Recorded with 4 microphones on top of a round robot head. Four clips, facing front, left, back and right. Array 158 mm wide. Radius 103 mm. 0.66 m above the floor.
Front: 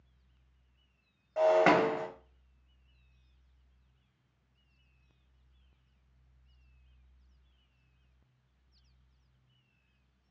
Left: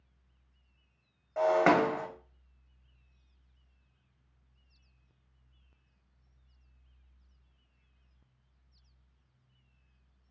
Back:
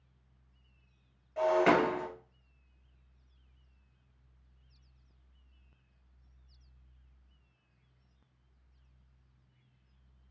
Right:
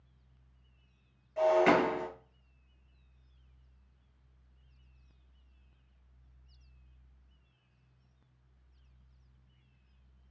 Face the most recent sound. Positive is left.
turn(degrees=55)